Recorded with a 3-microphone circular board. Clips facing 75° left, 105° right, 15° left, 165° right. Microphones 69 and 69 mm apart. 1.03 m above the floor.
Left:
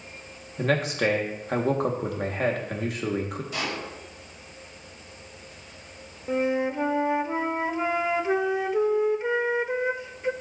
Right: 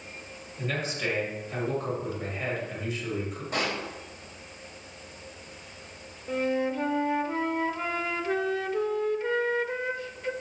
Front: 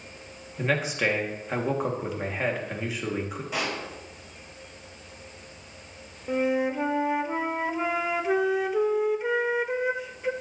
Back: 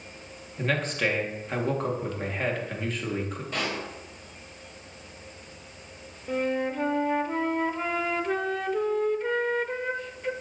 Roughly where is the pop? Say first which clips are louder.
Right 3 dB, front 1 dB; ahead right.